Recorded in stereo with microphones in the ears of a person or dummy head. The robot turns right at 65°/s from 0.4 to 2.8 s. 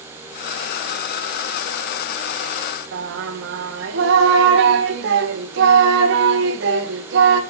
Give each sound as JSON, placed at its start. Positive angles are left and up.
{"t": 2.9, "sound": "singing", "side_deg": -65, "distance_m": 1.9}